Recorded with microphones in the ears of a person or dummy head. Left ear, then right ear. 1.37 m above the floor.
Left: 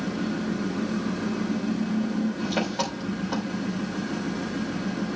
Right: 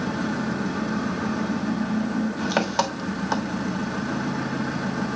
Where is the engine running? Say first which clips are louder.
Right 3 dB; 55° right (ahead or behind), 1.5 m.